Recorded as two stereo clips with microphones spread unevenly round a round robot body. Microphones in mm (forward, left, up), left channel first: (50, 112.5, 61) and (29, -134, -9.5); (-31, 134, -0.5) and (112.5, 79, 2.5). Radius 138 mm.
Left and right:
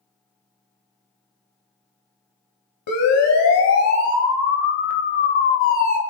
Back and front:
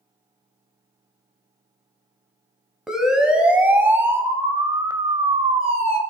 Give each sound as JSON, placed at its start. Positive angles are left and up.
{"t": 2.9, "sound": "a siren", "azimuth_deg": 65, "distance_m": 3.5}